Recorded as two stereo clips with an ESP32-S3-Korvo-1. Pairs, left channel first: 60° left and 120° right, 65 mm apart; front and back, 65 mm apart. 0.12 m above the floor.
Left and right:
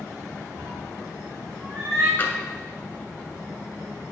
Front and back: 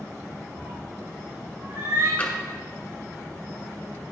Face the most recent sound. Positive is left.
turn(degrees=35)